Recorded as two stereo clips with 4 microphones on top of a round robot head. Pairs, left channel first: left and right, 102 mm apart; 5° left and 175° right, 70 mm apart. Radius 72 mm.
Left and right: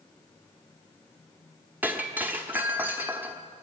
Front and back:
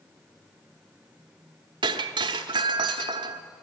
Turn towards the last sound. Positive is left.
turn(degrees=-165)